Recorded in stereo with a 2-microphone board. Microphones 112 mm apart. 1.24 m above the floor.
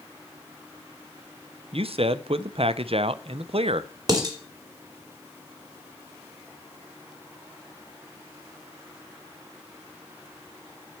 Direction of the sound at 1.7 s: 60° right (ahead or behind).